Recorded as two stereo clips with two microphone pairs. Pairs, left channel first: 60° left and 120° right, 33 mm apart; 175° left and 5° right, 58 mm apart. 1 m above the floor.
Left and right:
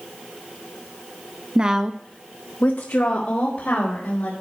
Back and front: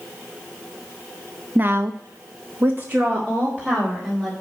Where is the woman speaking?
60° right, 1.1 m; by 4.3 s 70° left, 3.5 m.